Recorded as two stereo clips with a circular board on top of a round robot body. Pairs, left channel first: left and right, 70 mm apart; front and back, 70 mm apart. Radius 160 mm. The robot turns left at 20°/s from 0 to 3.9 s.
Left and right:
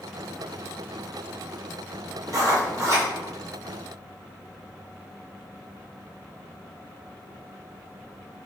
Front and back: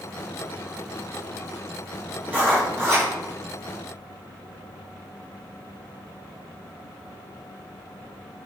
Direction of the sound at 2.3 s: 115° right.